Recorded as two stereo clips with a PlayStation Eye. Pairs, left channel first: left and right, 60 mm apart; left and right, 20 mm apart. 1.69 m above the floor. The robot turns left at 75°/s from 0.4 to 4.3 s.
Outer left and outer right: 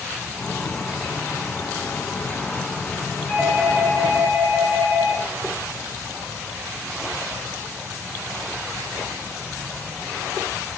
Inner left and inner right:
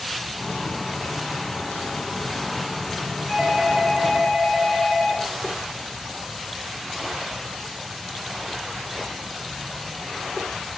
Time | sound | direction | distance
3.3 | a doorbell | 165° left | 2.5 m